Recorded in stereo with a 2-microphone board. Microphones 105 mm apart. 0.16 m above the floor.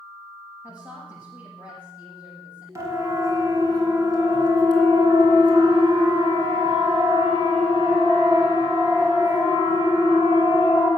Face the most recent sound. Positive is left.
turn(degrees=-35)  # may be behind; listen again after turning